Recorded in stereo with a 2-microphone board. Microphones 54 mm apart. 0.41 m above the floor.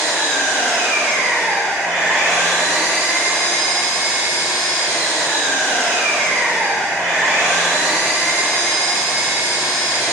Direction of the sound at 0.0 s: 40° right (ahead or behind).